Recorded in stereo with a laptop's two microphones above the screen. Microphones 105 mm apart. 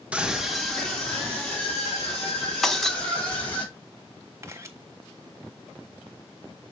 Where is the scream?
10° right (ahead or behind), 1.2 m; by 3.6 s 15° left (ahead or behind), 6 m.